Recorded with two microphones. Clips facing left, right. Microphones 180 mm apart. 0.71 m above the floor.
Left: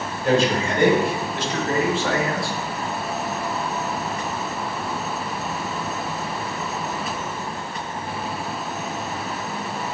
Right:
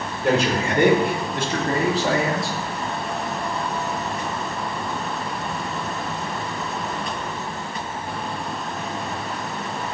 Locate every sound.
0.2 s a man speaking: 70° right (ahead or behind), 3 m; by 2.6 s 15° right (ahead or behind), 1.4 m